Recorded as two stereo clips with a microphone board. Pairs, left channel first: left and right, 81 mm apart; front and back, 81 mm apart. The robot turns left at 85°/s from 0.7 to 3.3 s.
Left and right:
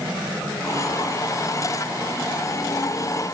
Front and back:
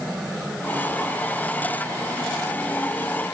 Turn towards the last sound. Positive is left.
No sound to turn to.